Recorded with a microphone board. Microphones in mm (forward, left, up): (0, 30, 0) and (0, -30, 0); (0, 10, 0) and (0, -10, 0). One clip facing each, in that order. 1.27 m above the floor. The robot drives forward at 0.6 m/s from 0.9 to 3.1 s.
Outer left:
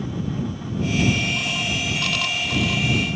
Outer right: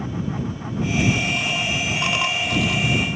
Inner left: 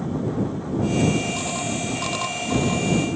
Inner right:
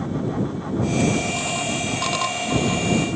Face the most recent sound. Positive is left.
No sound to turn to.